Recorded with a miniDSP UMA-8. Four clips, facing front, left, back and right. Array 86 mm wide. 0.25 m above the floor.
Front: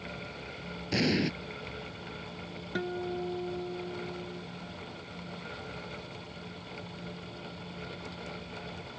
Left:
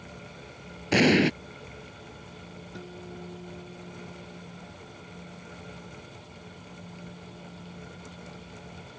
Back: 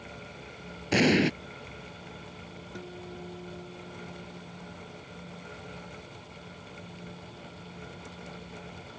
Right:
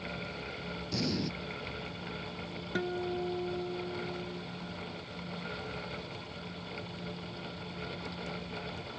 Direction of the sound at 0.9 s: 115° left.